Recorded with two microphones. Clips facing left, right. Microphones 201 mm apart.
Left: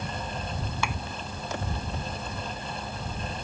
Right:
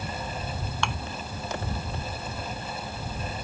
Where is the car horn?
I don't hear a car horn.